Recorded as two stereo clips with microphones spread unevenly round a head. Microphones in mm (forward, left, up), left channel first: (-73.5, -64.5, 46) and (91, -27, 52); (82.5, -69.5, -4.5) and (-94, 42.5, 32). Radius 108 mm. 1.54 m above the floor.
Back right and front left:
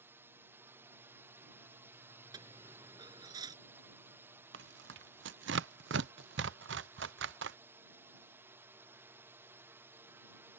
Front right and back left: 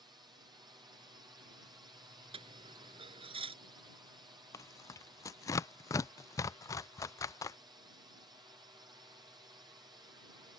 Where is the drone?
80° left.